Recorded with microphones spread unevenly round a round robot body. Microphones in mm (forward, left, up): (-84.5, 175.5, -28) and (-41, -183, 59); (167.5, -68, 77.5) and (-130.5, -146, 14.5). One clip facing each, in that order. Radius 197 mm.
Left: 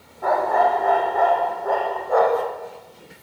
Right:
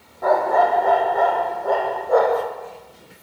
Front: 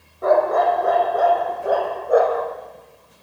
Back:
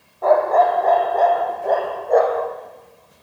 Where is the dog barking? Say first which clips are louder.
Right 2 dB, back 1 dB; 55° right, 5.5 m; by 2.5 s 70° right, 6.5 m.